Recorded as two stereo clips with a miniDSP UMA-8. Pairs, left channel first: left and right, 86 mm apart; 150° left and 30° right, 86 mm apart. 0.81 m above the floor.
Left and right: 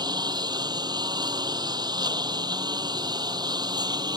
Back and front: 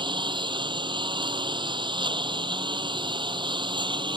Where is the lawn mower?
55° right.